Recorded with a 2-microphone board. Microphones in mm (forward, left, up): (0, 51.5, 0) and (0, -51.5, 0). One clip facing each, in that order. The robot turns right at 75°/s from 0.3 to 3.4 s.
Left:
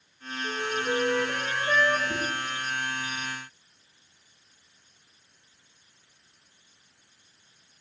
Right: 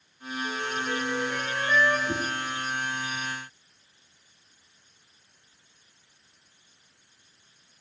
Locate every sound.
0.4 s a flute: 30° left, 1.3 m; by 2.0 s 145° left, 1.3 m
2.1 s a whoosh: 80° right, 4.5 m; by 2.2 s 85° right, 4.5 m